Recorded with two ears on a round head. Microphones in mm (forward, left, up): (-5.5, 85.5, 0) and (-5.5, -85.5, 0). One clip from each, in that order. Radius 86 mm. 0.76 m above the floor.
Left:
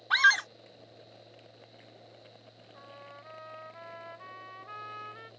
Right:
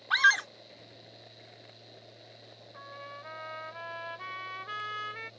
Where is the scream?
5° left (ahead or behind).